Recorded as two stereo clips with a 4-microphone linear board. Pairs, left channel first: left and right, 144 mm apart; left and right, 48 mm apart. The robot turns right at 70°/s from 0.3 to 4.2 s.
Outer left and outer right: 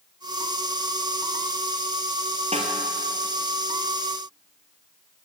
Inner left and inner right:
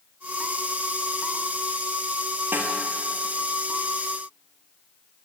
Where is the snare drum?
50° right (ahead or behind), 1.5 m; by 2.8 s 35° right (ahead or behind), 1.5 m.